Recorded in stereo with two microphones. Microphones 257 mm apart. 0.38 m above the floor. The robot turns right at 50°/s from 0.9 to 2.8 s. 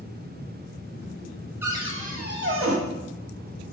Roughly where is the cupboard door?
Behind.